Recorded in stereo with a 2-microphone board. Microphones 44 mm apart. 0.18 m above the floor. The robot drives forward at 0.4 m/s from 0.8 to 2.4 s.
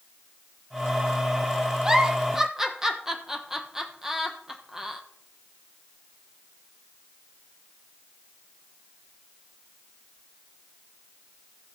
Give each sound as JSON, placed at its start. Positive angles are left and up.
{"t": 1.8, "sound": "a giggle", "side_deg": -15, "distance_m": 0.8}